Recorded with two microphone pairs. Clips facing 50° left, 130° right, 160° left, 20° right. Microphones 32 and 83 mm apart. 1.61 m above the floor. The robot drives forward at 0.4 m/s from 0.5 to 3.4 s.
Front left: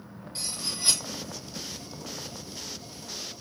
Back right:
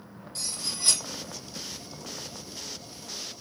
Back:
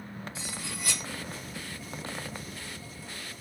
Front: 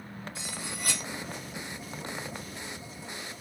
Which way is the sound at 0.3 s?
20° right.